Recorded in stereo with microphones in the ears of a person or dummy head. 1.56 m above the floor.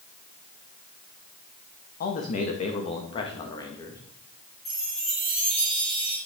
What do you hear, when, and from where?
2.0 s a man speaking: 55° left (ahead or behind), 2.0 m; by 4.0 s 20° left (ahead or behind), 2 m
4.7 s a chime: 35° left (ahead or behind), 1.9 m